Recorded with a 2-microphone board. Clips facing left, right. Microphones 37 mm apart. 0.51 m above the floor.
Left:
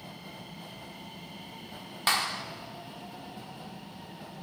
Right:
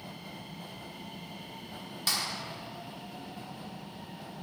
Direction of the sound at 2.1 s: 40° left (ahead or behind).